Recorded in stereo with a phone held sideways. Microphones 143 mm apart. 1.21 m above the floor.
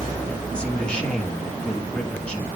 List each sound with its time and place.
0.5 s a man speaking: 5° left (ahead or behind), 2 m